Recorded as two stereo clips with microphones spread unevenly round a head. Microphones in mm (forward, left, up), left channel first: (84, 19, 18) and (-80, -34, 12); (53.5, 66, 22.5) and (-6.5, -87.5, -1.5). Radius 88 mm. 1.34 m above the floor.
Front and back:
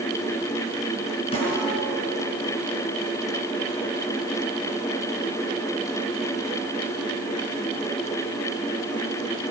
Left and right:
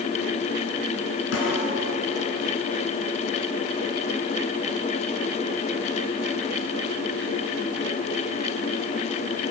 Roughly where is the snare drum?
Left.